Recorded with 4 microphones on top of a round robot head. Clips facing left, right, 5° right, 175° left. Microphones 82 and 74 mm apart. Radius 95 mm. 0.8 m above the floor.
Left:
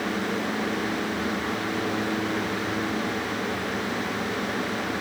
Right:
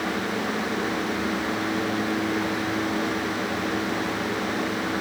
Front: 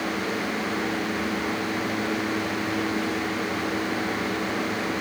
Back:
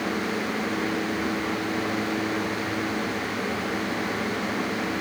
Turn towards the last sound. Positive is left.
No sound to turn to.